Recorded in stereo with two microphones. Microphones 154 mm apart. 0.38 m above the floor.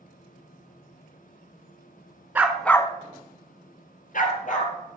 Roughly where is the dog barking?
Centre.